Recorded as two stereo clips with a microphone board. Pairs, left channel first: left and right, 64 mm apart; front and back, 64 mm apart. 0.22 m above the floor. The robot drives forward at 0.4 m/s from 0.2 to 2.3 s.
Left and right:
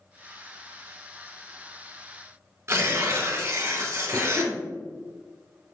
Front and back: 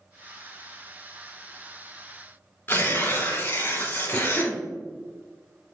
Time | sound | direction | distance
2.7 | tearing paper | 55° right | 1.3 m
4.1 | a cough | 105° left | 1.3 m